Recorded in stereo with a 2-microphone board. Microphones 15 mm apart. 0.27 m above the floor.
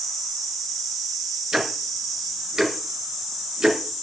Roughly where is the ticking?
Right.